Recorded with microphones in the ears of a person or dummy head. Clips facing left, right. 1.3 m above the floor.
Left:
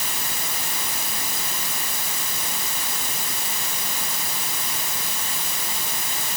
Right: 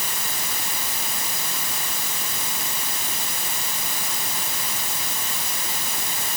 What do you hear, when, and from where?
Only background noise.